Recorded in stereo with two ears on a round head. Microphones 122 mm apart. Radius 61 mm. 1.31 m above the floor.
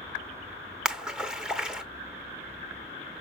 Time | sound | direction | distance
0.8 | a splash | 5° right (ahead or behind) | 1.0 m